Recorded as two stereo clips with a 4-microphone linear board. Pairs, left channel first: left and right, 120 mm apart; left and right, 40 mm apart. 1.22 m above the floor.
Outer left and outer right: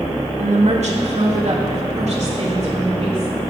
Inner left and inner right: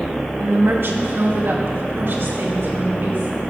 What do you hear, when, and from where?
0.4 s a woman speaking: 70° right (ahead or behind), 1.5 m; by 3.3 s 60° right (ahead or behind), 3 m